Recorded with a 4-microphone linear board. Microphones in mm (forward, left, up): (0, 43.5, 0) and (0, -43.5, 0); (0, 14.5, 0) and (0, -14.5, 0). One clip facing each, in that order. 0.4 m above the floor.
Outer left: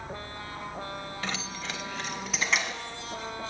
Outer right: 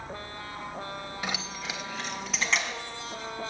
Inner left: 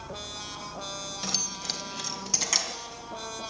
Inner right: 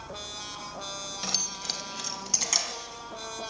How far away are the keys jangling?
About 1.1 m.